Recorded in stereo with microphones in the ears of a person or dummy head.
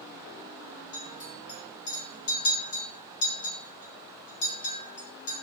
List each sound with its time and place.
0.9 s a clink: 60° left (ahead or behind), 1.6 m